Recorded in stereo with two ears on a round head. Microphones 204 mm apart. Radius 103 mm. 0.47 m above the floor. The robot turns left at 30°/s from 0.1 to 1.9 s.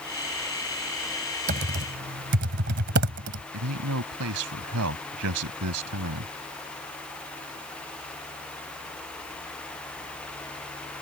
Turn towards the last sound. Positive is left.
turn(degrees=-75)  # may be behind; listen again after turning